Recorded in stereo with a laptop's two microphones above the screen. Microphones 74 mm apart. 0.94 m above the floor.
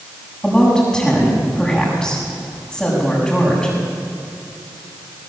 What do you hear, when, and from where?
0.4 s a woman speaking: 5° left (ahead or behind), 7 m